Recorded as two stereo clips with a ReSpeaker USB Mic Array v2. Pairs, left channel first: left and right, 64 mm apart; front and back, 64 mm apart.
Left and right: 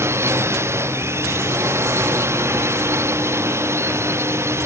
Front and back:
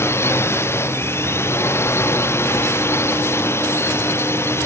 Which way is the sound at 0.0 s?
45° right.